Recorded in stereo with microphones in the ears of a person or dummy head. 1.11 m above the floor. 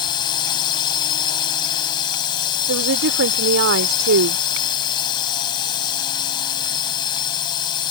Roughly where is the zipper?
No zipper in this recording.